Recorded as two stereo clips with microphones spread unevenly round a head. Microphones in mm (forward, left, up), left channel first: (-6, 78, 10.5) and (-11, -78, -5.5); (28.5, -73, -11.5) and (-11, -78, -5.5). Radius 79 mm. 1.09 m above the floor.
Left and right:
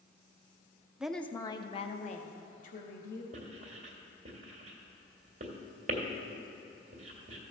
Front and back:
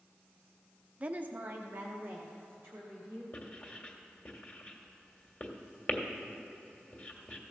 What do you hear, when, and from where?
1.0 s a woman speaking: 155° right, 0.5 m; by 3.2 s 125° left, 1.5 m
3.3 s writing: 45° right, 1.5 m